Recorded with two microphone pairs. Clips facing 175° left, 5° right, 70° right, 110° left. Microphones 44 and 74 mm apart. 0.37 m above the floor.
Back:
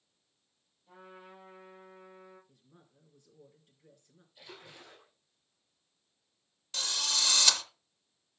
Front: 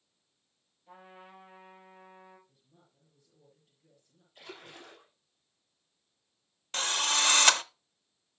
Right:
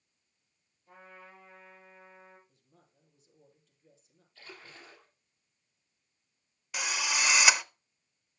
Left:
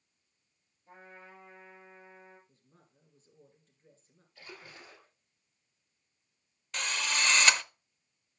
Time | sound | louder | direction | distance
0.9 | a trumpet | even, even | 50° left | 6.5 m
2.5 | a woman speaking | back 3 dB, left 1 dB | 160° left | 4.5 m
4.3 | a splash | front 3 dB, left 1 dB | 35° left | 5 m
6.7 | a drill | front 5 dB, right 1 dB | straight ahead | 0.5 m